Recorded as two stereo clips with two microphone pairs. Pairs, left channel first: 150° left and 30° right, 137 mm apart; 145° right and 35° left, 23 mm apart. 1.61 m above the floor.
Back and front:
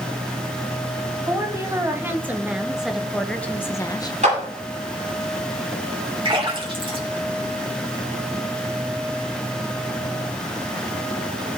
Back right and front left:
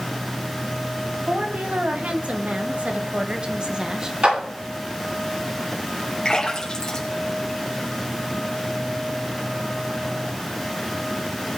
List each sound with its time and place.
1.3 s a woman speaking: 40° left, 2 m; by 4.1 s 95° left, 1.0 m
4.2 s a clap: 5° left, 8 m
6.2 s a splash: 80° right, 3 m